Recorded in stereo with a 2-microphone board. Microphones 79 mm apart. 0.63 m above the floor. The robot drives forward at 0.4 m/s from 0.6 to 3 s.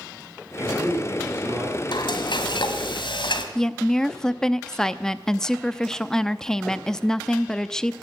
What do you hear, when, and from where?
0.6 s a man speaking: 20° right (ahead or behind), 8 m
1.9 s frying: 75° left (ahead or behind), 1.7 m; by 3.5 s 90° left, 1.7 m
3.5 s a woman speaking: 5° left (ahead or behind), 0.6 m